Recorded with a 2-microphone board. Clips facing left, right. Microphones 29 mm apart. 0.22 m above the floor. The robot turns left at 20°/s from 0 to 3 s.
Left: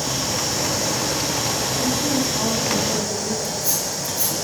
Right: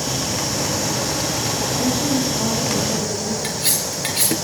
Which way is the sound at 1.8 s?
20° right (ahead or behind).